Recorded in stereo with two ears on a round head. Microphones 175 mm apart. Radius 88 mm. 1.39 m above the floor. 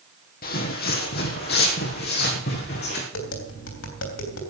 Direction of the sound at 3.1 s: 75° left (ahead or behind).